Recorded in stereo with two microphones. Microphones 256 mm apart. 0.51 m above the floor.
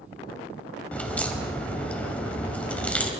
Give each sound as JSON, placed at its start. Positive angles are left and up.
{"t": 0.9, "sound": "a crack", "side_deg": 5, "distance_m": 3.0}